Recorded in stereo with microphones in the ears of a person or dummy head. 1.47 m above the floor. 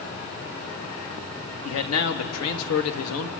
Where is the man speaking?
65° left (ahead or behind), 2 m; by 3.3 s 75° left (ahead or behind), 1.7 m.